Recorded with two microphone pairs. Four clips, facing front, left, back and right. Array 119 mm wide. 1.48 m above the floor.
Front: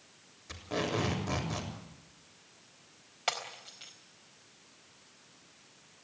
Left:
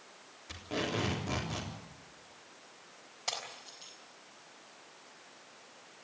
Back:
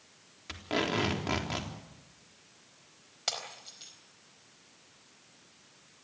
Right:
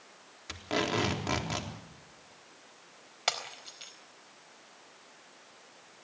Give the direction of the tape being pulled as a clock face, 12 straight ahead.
4 o'clock.